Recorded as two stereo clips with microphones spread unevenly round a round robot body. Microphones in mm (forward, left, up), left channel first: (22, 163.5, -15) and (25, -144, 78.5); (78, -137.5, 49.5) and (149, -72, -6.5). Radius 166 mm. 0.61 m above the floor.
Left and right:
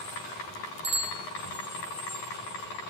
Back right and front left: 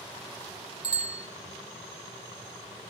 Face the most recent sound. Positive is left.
turn(degrees=-30)